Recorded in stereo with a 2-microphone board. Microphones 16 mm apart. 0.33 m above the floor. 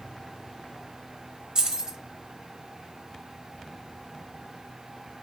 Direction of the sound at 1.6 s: 50° right (ahead or behind).